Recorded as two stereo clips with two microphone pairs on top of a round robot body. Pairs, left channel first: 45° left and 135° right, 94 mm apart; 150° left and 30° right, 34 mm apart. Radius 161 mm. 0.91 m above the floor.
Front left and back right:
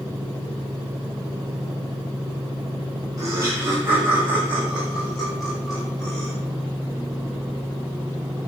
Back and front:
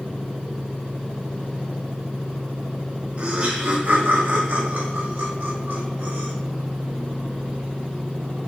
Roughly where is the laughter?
Right.